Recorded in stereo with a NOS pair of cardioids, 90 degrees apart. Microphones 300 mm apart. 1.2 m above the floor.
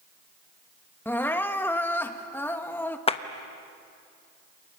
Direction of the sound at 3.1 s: 20° left.